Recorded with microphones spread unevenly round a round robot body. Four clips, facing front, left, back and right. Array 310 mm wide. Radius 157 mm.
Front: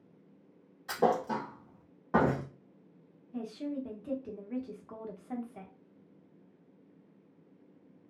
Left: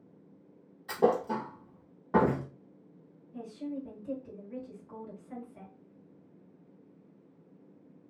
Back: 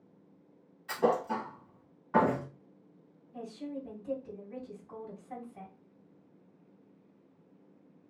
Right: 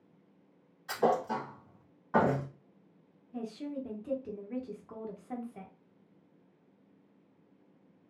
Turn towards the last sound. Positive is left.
turn(degrees=-50)